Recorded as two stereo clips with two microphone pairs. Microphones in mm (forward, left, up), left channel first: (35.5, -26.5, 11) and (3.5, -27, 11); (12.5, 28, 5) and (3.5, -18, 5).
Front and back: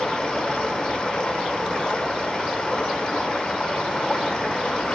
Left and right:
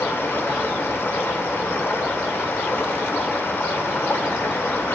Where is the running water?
55° left, 1.2 m.